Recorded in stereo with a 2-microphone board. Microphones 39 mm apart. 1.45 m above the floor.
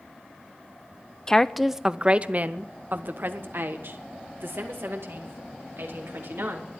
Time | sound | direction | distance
1.3 | a woman speaking | 20° left (ahead or behind) | 0.5 m